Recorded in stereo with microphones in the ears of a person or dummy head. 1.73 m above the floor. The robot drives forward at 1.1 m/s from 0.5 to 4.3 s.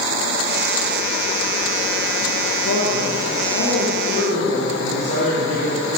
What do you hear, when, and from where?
2.6 s a man speaking: 75° left (ahead or behind), 2 m; by 6.0 s 40° left (ahead or behind), 3 m